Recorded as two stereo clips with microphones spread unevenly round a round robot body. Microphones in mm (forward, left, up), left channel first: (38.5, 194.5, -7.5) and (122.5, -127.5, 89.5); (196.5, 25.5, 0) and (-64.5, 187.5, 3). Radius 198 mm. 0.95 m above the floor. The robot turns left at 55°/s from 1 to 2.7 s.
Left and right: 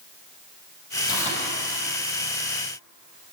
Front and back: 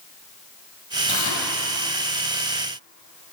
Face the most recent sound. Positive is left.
turn(degrees=-60)